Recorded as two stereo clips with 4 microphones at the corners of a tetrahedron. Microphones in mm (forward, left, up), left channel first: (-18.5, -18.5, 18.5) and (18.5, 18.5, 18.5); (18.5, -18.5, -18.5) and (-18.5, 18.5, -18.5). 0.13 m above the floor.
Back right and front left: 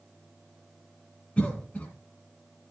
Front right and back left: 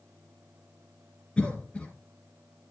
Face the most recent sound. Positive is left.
turn(degrees=-95)